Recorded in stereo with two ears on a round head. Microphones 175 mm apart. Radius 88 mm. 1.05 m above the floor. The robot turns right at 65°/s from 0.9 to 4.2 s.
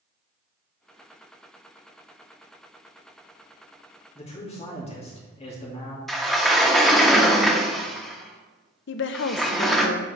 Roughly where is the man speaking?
Left.